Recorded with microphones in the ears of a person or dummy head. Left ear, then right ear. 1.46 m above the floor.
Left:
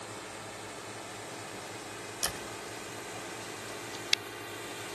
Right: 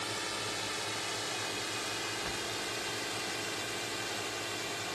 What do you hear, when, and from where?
0.0 s a drone: 30° right (ahead or behind); by 5.0 s 5° right (ahead or behind)
2.2 s a door slam: 75° left (ahead or behind)